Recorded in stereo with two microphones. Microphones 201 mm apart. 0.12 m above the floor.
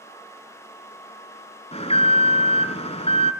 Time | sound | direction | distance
1.7 | an alarm | 30° left (ahead or behind) | 1.8 m